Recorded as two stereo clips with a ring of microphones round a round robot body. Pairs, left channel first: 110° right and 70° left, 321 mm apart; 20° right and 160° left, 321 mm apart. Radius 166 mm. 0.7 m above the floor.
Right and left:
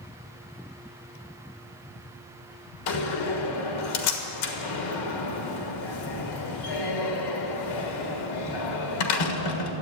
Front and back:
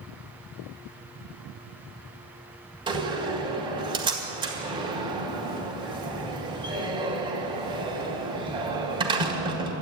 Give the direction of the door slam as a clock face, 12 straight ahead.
4 o'clock.